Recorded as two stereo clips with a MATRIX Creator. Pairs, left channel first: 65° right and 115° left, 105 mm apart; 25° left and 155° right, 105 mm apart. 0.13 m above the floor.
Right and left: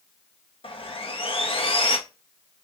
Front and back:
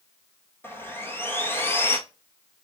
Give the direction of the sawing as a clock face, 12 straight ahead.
2 o'clock.